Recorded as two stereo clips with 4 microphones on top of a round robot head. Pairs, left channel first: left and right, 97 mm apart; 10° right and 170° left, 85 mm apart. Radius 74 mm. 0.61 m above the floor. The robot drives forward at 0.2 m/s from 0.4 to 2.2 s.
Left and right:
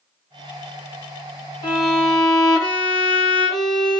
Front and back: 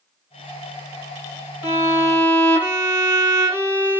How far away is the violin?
About 1.8 m.